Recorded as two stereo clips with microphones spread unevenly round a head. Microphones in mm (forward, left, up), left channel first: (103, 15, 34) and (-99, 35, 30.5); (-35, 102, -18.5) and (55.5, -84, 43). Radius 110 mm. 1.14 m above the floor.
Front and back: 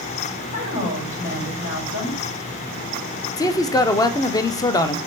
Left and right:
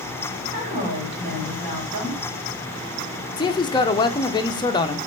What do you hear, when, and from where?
0.5 s a woman speaking: 10° right, 2.5 m
3.4 s a man speaking: 65° left, 0.5 m